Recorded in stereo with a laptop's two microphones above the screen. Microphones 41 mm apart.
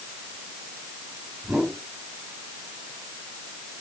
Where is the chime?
I don't hear a chime.